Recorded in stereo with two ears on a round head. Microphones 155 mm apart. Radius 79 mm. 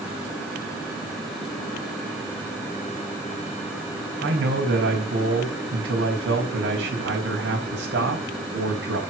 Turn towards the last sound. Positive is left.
turn(degrees=-70)  # may be behind; listen again after turning